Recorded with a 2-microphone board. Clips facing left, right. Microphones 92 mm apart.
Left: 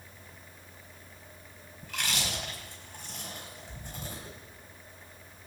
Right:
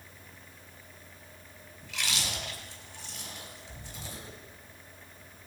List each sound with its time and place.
1.8 s chewing: 50° left (ahead or behind), 4.5 m